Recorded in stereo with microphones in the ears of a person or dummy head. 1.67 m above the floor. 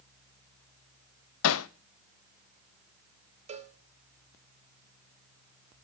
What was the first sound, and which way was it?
Hammering, 75° left (ahead or behind).